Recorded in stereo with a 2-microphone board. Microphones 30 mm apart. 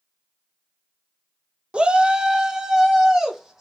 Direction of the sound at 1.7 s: 40° right (ahead or behind).